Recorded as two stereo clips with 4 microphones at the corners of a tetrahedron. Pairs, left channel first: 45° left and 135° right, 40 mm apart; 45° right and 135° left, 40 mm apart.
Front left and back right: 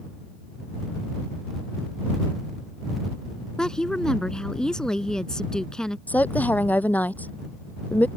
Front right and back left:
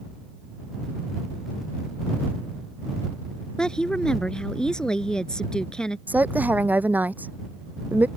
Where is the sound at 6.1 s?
90° left.